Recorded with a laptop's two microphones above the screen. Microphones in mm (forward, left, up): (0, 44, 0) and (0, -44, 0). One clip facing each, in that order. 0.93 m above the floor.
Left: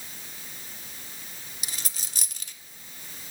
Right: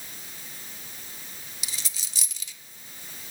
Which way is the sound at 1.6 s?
45° left (ahead or behind).